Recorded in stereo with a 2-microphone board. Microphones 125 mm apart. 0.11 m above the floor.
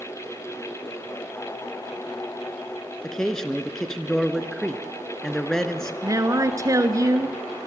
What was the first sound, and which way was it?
A man speaking, 5° left (ahead or behind).